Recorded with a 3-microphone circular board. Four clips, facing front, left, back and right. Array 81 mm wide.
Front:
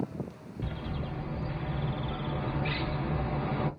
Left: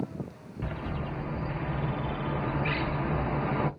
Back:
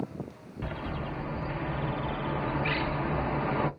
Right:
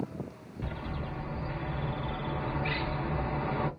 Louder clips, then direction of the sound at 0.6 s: Left 3 dB, back 3 dB; 155° left.